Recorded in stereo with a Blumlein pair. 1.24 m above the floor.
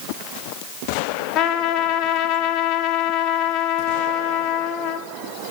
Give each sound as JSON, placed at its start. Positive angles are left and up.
{"t": 1.4, "sound": "a trumpet", "azimuth_deg": 35, "distance_m": 0.6}